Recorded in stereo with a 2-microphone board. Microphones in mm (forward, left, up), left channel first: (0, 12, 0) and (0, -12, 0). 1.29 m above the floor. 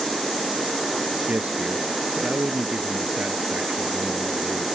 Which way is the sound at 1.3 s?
90° right.